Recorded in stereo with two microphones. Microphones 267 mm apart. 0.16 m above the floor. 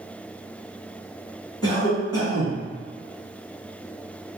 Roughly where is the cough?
Centre.